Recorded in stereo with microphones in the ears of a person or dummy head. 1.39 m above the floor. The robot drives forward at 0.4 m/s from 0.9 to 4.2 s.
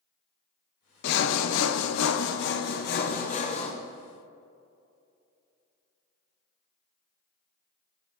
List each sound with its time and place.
1.0 s sawing: 60° left (ahead or behind), 0.6 m; by 3.7 s 35° left (ahead or behind), 0.9 m